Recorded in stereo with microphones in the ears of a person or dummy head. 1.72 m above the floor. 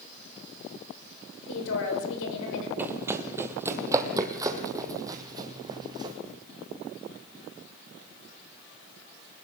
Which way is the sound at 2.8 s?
10° right (ahead or behind).